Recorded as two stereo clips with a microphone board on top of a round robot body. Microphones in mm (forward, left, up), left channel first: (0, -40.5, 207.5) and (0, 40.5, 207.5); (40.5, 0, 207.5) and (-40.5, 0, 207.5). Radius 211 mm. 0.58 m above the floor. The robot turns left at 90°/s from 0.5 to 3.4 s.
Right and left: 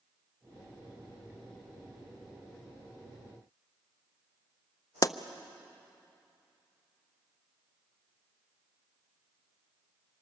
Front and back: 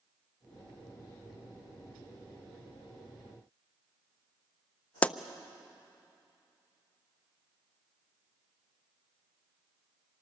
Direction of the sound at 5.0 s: 70° right.